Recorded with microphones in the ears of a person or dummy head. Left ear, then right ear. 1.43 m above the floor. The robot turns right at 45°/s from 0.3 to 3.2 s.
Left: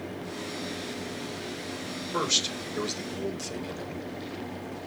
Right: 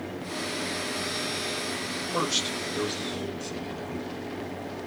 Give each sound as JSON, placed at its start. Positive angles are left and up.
{"t": 2.1, "sound": "a man speaking", "azimuth_deg": 55, "distance_m": 1.8}